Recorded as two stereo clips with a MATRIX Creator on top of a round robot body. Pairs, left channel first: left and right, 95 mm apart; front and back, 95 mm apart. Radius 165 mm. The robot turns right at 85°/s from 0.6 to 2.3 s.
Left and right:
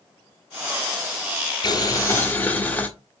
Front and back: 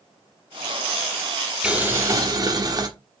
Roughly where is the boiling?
Left.